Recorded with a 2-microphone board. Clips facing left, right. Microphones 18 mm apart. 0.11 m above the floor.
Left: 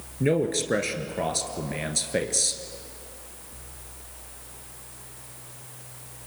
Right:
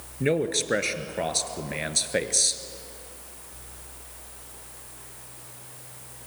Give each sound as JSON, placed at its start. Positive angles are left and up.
{"t": 0.2, "sound": "a man speaking", "side_deg": -15, "distance_m": 1.4}